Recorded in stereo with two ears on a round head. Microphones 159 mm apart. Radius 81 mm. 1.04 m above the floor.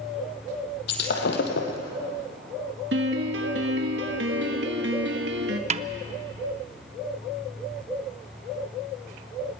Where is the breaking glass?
65° left (ahead or behind), 2.5 m.